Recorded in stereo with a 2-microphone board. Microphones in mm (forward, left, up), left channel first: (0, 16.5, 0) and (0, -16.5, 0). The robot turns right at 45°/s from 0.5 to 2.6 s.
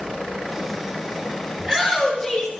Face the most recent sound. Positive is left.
turn(degrees=60)